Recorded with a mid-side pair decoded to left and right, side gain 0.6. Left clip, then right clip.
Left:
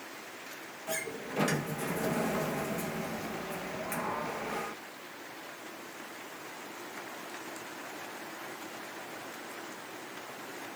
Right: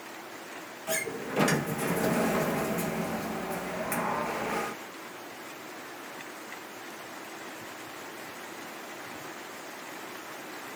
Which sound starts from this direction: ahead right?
A sliding door, at 0.9 s.